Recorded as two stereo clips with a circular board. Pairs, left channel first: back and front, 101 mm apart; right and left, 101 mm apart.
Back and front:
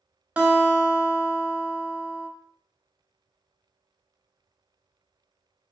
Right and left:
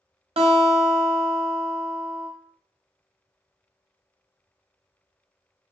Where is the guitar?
75° left, 0.6 m.